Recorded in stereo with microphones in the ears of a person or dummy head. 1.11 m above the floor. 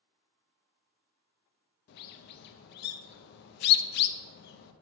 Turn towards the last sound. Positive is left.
turn(degrees=60)  # may be behind; listen again after turning